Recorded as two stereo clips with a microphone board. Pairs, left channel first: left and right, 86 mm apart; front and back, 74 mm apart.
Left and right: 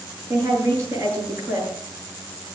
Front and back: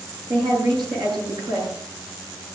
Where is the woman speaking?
155° right, 7.5 m.